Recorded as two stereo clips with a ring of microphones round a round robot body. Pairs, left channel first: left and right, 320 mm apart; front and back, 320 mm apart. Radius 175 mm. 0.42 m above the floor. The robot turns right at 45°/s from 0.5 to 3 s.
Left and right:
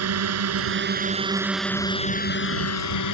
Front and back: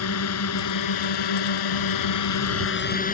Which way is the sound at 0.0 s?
50° right.